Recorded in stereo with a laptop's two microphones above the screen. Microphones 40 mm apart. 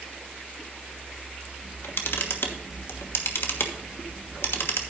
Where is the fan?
15° right (ahead or behind), 1.9 m.